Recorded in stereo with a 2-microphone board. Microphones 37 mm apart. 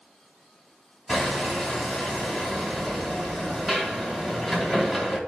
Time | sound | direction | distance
1.1 | hammering | centre (ahead or behind) | 1.7 m